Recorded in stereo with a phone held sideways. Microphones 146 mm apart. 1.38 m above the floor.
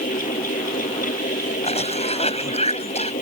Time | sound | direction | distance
0.0 | a fan | 80° left | ?
1.6 | a cough | 50° left (ahead or behind) | ?